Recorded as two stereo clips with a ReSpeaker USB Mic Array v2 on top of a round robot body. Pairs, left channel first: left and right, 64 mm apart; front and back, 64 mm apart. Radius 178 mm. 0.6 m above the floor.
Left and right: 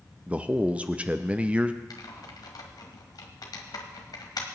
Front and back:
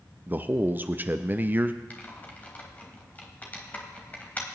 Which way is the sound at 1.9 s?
65° left.